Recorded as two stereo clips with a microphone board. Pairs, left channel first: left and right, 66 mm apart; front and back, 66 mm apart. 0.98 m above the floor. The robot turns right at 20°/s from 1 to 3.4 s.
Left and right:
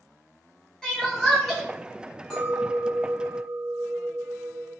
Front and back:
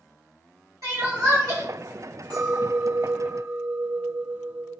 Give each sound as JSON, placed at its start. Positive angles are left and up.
{"t": 0.8, "sound": "crying", "azimuth_deg": 165, "distance_m": 1.3}
{"t": 2.3, "sound": "a clink", "azimuth_deg": 175, "distance_m": 1.5}